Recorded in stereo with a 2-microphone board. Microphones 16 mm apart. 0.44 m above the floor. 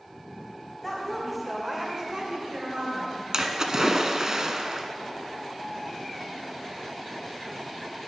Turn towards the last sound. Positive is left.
turn(degrees=-35)  # may be behind; listen again after turning